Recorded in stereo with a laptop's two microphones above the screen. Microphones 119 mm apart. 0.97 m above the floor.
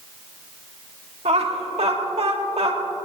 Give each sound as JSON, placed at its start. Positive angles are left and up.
{"t": 1.2, "sound": "laughter", "side_deg": -60, "distance_m": 2.5}